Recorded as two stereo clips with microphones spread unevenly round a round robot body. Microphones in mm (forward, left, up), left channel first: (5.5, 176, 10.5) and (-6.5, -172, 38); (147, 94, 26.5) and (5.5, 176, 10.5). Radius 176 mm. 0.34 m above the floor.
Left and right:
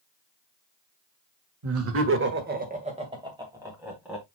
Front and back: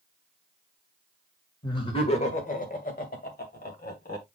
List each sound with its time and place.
1.6 s laughter: 95° right, 1.7 m; by 4.2 s 5° right, 3.5 m